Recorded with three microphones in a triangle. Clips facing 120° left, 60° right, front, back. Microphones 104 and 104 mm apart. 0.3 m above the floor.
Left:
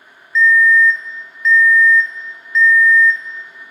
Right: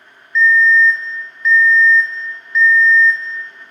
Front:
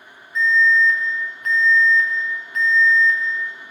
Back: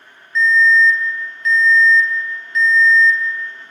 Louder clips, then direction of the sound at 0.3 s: Even, back 3 dB; 25° left.